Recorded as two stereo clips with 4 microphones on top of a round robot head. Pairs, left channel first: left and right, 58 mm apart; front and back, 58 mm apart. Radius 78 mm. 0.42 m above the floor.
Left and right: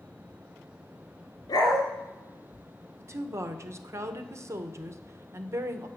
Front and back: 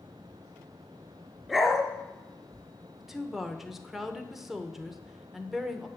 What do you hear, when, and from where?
1.5 s a dog barking: 95° left, 3 m
3.0 s a woman speaking: 95° right, 1.3 m